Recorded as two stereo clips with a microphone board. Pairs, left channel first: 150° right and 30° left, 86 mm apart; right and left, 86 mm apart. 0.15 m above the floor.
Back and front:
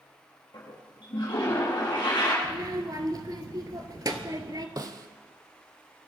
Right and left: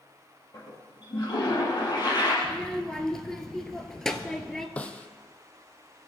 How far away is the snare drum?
About 1.0 m.